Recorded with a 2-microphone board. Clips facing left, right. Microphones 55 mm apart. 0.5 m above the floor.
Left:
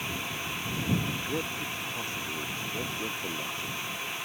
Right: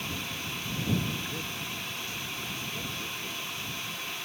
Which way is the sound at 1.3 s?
35° left (ahead or behind).